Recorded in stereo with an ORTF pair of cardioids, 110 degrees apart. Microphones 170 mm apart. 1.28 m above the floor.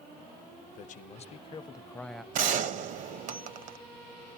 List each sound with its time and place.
0.7 s a man speaking: 55° left, 1.0 m; by 2.2 s straight ahead, 0.6 m
2.3 s a gunshot: 55° right, 0.8 m